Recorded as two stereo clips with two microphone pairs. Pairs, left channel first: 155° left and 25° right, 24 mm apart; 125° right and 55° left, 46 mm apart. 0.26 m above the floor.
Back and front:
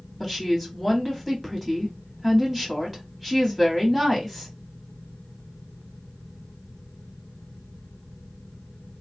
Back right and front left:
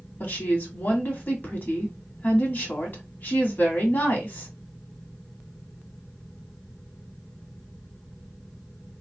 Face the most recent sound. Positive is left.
turn(degrees=-115)